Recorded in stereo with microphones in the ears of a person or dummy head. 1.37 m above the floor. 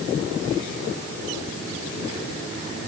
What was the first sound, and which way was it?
Only background noise.